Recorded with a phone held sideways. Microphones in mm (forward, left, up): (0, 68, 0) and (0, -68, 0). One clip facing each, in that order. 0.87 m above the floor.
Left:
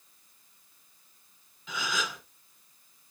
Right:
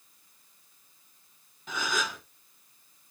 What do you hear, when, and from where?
1.7 s a gasp: 45° right (ahead or behind), 1.6 m